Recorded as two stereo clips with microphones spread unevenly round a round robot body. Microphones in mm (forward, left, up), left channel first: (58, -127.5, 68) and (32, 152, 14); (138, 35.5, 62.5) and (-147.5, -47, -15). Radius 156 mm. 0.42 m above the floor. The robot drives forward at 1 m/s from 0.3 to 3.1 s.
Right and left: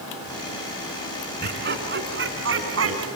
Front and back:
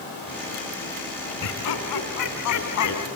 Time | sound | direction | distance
1.4 | laughter | 40° left | 4 m